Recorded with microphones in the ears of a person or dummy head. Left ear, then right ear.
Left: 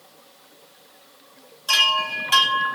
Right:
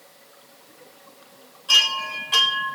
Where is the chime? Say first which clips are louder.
Even; 50° left (ahead or behind), 9 m.